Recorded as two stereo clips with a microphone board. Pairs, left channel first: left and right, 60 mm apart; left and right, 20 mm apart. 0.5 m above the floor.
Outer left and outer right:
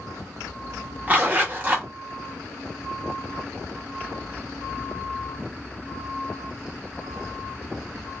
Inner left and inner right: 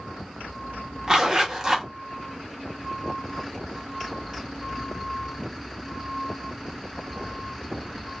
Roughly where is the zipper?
Right.